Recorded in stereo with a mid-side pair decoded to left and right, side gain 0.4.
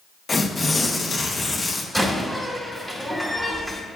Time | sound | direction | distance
0.3 | tearing paper | 25° left | 1.1 m
1.9 | a door slam | 10° right | 2 m